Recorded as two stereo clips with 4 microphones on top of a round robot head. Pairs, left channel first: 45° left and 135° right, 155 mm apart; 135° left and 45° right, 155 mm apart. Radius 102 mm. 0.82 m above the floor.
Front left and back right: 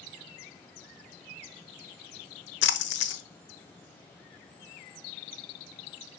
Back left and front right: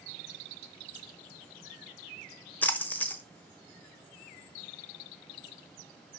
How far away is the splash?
About 1.0 m.